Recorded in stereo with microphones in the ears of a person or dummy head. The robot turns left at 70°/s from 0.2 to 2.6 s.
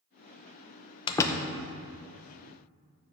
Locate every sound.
1.1 s a door slam: 30° left (ahead or behind), 0.7 m; by 1.5 s 5° left (ahead or behind), 0.7 m